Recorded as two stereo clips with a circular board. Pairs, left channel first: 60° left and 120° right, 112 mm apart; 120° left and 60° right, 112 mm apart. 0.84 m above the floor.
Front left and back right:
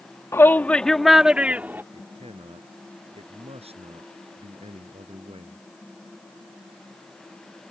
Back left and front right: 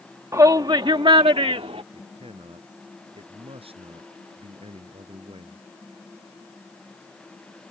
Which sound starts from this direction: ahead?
A shout, at 0.3 s.